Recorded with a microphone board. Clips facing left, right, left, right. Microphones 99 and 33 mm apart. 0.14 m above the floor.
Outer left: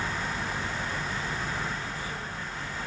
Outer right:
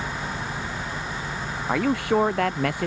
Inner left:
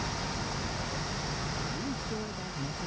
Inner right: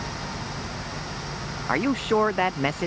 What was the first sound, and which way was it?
A man speaking, 80° right.